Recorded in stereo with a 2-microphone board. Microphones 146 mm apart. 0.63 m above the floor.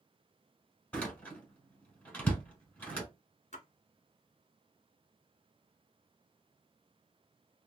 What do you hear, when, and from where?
0.9 s a door slam: 10° left (ahead or behind), 1.7 m
3.5 s a splash: 55° left (ahead or behind), 1.5 m